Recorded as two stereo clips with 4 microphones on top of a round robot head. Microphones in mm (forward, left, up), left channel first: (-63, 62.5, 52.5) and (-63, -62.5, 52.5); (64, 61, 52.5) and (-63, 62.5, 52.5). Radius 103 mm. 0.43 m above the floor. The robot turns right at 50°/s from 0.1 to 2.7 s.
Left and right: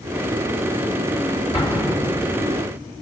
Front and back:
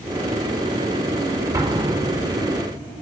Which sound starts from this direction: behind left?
An explosion, at 1.5 s.